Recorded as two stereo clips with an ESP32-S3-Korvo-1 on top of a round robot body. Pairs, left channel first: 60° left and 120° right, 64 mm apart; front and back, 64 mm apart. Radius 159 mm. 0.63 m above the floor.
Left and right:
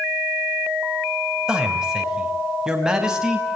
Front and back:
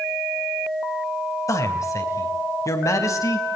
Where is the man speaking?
40° right, 4.5 m.